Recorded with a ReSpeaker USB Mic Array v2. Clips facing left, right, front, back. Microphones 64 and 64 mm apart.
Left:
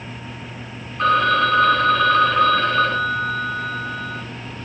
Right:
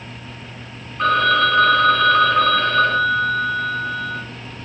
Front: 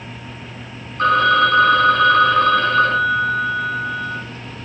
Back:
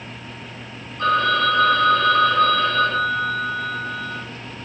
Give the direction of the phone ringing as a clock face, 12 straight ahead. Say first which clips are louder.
Even, front 4 dB; 12 o'clock.